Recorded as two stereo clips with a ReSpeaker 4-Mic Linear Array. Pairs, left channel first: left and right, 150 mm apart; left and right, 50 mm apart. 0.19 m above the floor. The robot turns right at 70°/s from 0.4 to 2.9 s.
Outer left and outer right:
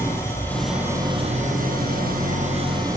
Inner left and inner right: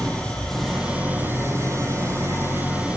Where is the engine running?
160° left, 7 m; by 3.0 s 25° right, 7 m.